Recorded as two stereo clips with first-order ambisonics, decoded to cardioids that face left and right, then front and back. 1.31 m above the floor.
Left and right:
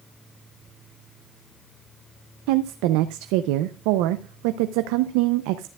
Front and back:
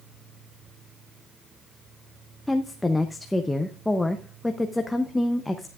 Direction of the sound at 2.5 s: 85° right.